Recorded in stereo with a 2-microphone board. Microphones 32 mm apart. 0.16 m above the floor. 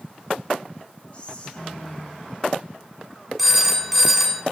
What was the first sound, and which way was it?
Whispering, 35° left (ahead or behind).